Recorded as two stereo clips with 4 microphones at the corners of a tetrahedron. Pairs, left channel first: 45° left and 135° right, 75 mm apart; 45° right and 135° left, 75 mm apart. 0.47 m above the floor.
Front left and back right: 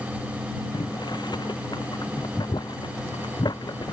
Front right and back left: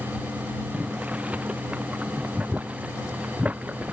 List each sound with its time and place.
0.7 s boiling: 60° left